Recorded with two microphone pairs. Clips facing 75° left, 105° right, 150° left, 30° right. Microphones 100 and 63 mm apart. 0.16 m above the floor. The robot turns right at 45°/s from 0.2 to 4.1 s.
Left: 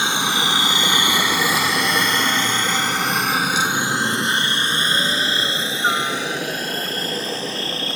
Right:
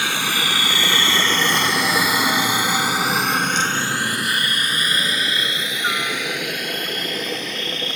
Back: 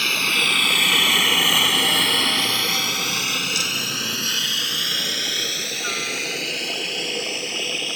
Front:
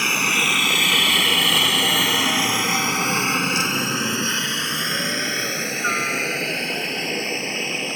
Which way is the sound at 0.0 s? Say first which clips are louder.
Left 2 dB, front 2 dB; 25° left.